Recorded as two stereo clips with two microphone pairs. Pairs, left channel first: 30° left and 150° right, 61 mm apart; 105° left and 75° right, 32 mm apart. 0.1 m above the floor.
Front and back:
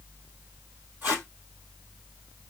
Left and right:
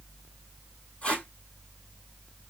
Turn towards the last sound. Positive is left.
turn(degrees=150)